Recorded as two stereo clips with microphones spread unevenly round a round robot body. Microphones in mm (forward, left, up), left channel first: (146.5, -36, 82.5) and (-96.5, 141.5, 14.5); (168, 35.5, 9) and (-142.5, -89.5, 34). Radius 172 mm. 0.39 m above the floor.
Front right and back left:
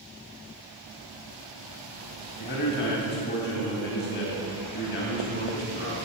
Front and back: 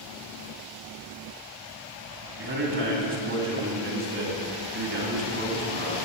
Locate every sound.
2.4 s a man speaking: 100° right, 2.5 m